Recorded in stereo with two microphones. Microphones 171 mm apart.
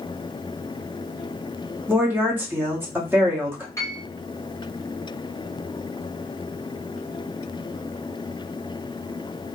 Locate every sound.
1.9 s a woman speaking: 10° right (ahead or behind), 1.4 m
3.8 s a piano: 20° left (ahead or behind), 1.3 m